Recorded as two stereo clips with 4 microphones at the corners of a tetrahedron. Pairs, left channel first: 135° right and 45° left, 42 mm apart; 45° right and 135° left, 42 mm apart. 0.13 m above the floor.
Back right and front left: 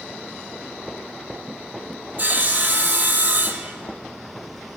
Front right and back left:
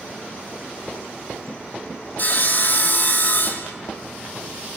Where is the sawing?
Straight ahead, 0.6 m.